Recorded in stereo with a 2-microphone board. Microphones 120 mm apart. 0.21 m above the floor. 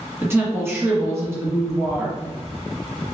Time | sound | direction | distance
0.2 | a woman speaking | 20° right (ahead or behind) | 1.9 m